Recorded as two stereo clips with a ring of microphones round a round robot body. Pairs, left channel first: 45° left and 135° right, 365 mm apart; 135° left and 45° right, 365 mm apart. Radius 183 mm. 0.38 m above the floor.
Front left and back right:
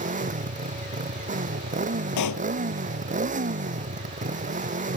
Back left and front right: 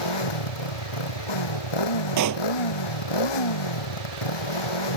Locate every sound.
0.0 s a motorcycle: 155° left
2.2 s a pop: straight ahead